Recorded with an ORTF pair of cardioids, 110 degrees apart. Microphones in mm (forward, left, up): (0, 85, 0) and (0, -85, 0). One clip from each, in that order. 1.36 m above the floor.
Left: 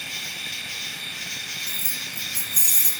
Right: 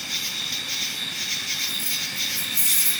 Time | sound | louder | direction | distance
0.0 | an insect | right 3 dB | 35° right | 0.9 m
1.7 | keys jangling | right 3 dB | 65° left | 4.5 m